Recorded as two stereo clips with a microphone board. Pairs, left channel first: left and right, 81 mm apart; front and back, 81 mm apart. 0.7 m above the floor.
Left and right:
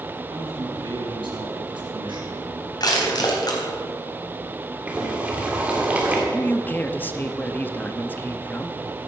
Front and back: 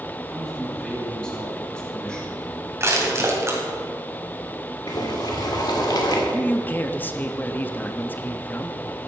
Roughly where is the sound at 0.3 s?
Right.